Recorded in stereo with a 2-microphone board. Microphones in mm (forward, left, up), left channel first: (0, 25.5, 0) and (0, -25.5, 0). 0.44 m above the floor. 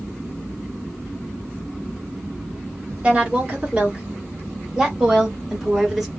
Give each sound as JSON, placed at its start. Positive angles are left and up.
{"t": 3.0, "sound": "a woman speaking", "side_deg": -20, "distance_m": 1.4}